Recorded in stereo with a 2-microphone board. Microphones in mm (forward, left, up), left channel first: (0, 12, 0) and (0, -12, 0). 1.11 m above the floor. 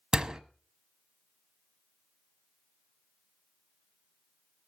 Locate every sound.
0.1 s a door slam: 30° right (ahead or behind), 1.0 m